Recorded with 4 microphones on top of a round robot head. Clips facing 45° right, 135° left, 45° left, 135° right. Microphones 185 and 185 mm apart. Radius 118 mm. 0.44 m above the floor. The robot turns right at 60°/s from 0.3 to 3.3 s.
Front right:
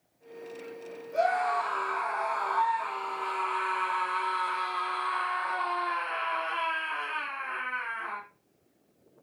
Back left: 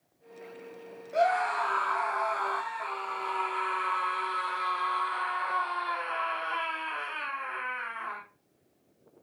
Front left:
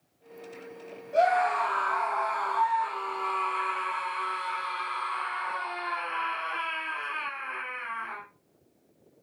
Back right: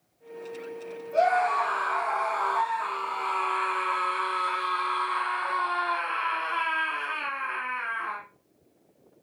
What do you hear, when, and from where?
1.1 s a scream: 115° left, 6 m; by 8.2 s 115° right, 6 m